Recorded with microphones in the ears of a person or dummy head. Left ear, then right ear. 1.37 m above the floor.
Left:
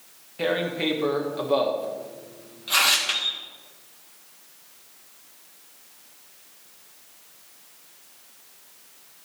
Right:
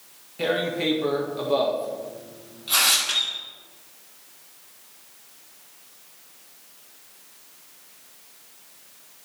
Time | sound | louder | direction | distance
0.4 | tearing paper | right 1 dB | 15° left (ahead or behind) | 1.5 m
3.0 | a bird | right 1 dB | 25° right (ahead or behind) | 2.5 m